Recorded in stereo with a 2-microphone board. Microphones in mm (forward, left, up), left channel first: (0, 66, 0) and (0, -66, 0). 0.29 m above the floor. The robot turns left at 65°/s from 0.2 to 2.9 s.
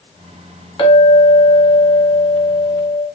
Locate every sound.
0.8 s a clink: 75° left, 1.0 m; by 3.0 s 60° right, 1.0 m